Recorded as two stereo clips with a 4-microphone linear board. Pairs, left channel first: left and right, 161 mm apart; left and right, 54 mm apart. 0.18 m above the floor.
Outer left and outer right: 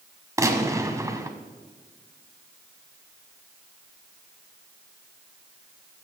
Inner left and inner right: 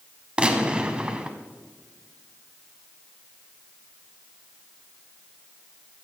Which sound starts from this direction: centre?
A gunshot, at 0.4 s.